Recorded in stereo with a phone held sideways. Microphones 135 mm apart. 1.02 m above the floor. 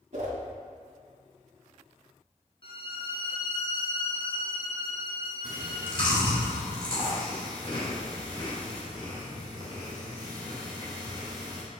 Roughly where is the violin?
Left.